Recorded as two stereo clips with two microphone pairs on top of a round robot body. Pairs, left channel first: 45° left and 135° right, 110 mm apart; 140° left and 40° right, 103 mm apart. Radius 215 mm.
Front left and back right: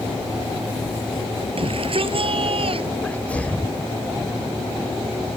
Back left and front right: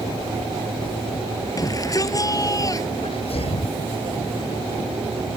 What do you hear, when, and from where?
1.6 s a shout: 170° right
3.0 s a sneeze: 120° left